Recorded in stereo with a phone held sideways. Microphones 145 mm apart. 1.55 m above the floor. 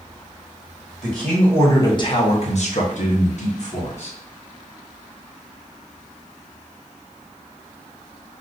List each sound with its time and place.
1.0 s a man speaking: 5° left (ahead or behind), 1.0 m; by 4.2 s 55° left (ahead or behind), 1.4 m